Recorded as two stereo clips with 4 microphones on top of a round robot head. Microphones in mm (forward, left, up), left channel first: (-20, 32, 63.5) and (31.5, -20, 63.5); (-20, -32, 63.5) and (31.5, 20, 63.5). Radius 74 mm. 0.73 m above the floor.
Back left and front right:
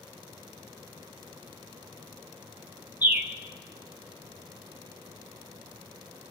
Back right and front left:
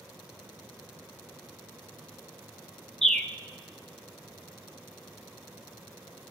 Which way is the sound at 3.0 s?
60° right.